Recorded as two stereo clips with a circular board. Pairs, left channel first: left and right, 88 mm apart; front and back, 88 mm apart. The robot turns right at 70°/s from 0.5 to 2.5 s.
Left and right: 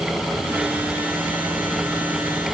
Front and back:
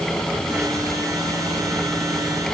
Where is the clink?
No clink in this recording.